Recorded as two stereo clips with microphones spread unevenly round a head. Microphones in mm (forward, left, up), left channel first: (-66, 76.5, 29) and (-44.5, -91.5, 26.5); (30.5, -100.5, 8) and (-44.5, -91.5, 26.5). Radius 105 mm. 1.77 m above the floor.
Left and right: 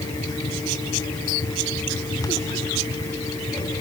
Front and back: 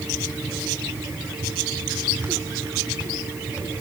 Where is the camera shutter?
No camera shutter in this recording.